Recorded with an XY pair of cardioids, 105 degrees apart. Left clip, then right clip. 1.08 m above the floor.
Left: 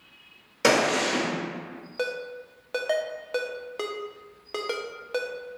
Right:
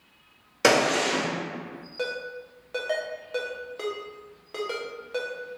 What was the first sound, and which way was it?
A gunshot, 20° right.